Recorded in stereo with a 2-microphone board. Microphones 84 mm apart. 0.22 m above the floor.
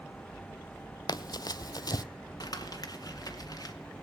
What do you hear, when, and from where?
1.1 s running footsteps: 55° left (ahead or behind), 0.5 m
2.4 s crumpling: 50° left (ahead or behind), 1.9 m